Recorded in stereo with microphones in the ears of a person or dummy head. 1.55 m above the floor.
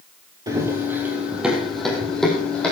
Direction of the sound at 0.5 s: 15° right (ahead or behind).